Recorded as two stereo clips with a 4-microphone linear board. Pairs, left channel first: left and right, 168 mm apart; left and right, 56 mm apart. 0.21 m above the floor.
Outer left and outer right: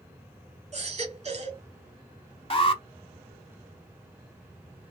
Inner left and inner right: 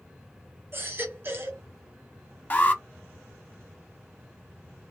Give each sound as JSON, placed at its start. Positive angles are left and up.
{"t": 0.7, "sound": "a baby crying", "side_deg": -40, "distance_m": 1.3}
{"t": 2.5, "sound": "an alarm", "side_deg": 35, "distance_m": 0.8}